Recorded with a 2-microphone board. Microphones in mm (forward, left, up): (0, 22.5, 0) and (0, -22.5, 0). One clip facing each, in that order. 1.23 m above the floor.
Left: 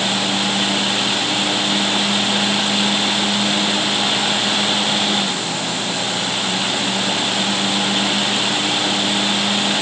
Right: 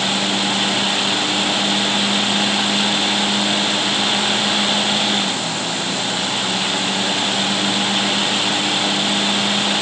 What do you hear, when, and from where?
Only background noise.